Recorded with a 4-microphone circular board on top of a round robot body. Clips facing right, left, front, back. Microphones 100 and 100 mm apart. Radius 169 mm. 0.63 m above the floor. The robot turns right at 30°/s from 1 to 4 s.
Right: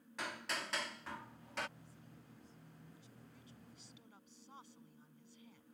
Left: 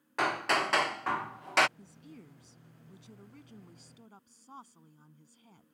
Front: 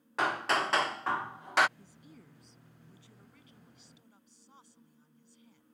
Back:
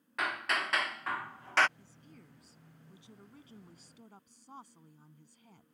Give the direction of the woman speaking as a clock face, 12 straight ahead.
10 o'clock.